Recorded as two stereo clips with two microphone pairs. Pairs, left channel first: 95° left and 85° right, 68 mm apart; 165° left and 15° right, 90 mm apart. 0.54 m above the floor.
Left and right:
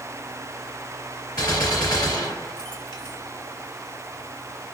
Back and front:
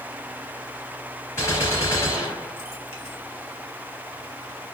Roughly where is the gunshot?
Left.